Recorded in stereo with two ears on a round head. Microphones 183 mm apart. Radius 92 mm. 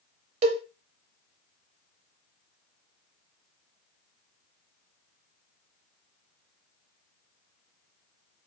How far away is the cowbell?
About 0.9 m.